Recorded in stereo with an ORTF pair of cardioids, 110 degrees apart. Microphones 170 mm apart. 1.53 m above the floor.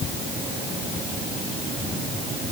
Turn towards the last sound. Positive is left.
No sound to turn to.